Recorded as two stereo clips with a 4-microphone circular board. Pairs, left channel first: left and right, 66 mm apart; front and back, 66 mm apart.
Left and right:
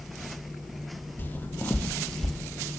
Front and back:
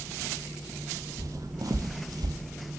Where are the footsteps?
150° left, 3 m; by 2.4 s straight behind, 2 m.